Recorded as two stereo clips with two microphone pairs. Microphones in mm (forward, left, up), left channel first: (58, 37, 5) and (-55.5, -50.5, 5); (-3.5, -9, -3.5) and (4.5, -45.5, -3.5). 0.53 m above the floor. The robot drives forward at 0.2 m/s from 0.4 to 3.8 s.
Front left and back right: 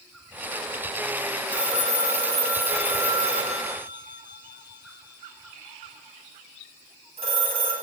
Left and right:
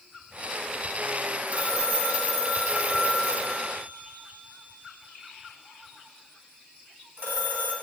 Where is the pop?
I don't hear a pop.